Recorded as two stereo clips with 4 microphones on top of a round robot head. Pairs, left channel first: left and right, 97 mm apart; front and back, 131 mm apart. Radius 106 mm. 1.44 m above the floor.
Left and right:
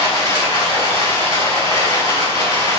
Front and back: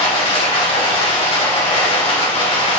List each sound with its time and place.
0.0 s running water: 40° left, 1.9 m